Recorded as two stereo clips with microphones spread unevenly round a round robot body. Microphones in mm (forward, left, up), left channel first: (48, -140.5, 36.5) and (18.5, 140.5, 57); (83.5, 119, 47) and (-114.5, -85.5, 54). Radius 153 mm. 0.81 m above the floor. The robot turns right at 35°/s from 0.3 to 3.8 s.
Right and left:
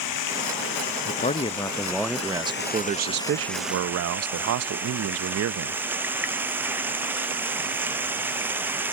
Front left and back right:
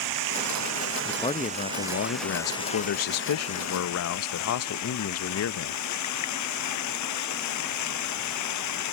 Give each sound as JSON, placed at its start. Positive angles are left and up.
{"t": 0.0, "sound": "running water", "azimuth_deg": -110}
{"t": 1.1, "sound": "a man speaking", "azimuth_deg": -30}